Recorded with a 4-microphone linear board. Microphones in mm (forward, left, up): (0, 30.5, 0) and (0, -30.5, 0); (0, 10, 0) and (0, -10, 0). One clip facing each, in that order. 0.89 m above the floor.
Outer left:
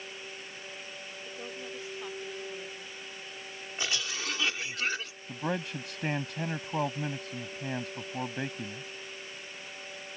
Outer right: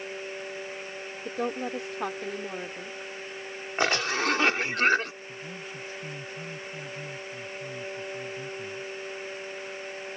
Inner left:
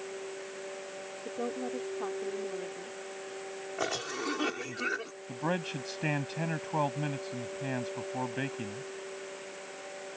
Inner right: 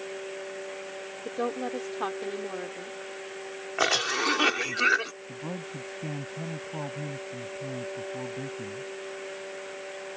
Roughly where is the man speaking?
Left.